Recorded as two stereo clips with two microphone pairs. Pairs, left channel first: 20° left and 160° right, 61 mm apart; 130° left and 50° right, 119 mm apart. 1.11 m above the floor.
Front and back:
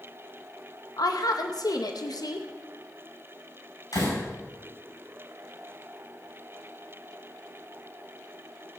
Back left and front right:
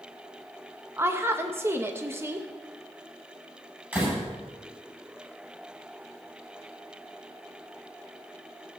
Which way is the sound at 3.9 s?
25° left.